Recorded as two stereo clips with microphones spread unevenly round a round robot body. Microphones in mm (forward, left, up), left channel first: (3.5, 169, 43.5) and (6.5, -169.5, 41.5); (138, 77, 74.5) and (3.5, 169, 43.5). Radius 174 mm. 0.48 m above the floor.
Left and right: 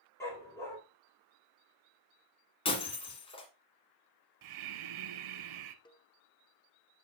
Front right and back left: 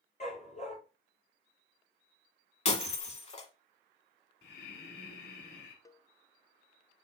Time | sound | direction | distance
0.2 | a dog barking | 10° left | 5 m
2.6 | breaking glass | 15° left | 1.4 m
4.4 | breathing | 65° right | 0.8 m
5.8 | a cowbell | 35° left | 0.8 m